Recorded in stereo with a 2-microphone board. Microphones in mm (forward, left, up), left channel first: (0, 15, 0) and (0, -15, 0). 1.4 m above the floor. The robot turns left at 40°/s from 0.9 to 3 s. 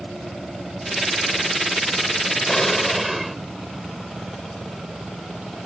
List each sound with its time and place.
2.5 s an explosion: 15° left (ahead or behind); by 3.4 s 5° right (ahead or behind)